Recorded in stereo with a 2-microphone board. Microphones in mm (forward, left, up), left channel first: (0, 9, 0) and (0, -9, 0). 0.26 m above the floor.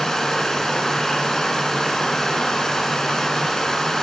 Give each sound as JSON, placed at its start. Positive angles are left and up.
{"t": 0.0, "sound": "running water", "side_deg": 45, "distance_m": 2.0}